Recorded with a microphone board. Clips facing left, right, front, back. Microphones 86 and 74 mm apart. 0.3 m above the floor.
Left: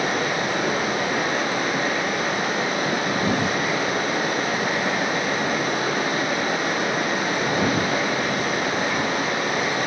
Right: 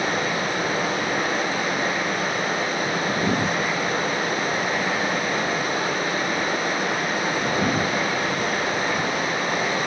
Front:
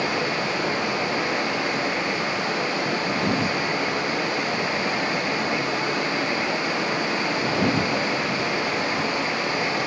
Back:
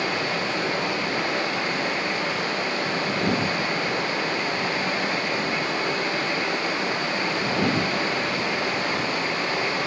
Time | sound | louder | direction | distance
0.0 | running water | left 1 dB, front 1 dB | 70° left | 9 m